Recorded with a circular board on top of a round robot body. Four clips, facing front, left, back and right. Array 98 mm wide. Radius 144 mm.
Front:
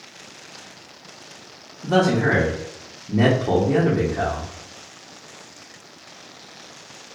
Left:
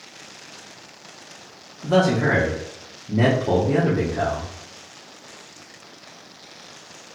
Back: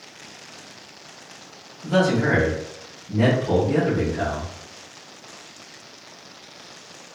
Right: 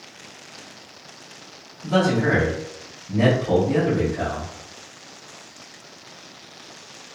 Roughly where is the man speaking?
Ahead left.